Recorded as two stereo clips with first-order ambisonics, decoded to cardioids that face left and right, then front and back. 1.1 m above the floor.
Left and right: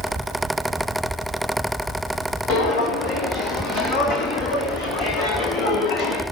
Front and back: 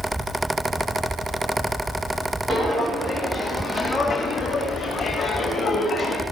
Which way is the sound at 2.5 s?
105° left.